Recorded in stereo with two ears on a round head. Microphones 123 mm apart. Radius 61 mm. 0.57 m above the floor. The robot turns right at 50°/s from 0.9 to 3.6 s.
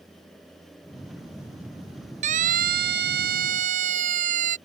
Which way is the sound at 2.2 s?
55° right (ahead or behind).